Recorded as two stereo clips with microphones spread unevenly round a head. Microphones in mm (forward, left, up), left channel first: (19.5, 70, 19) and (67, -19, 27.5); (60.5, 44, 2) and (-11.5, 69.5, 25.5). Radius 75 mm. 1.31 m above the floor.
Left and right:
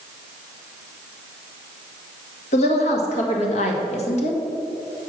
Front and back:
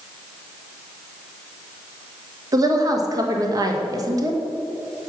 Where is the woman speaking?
120° left, 1.6 m.